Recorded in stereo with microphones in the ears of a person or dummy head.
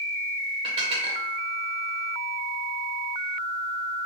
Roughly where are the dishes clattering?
Right.